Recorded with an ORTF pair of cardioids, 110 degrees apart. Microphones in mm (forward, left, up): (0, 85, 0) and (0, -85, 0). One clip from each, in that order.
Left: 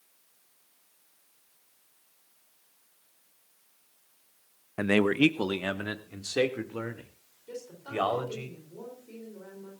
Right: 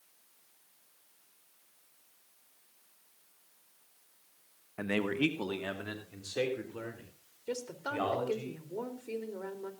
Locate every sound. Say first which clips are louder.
4.8 s a man speaking: left 8 dB; 40° left, 0.8 m
7.5 s a woman speaking: right 3 dB; 60° right, 4 m